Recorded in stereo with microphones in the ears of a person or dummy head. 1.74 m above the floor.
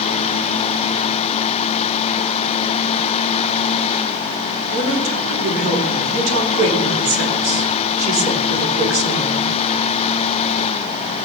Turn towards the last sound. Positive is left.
turn(degrees=-70)  # may be behind; listen again after turning